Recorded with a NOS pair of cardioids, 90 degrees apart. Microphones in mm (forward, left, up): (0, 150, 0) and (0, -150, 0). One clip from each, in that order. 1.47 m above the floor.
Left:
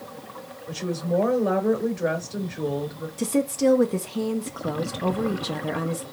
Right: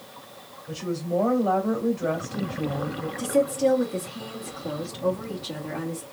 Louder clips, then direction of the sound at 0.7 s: Left 2 dB; 40° left.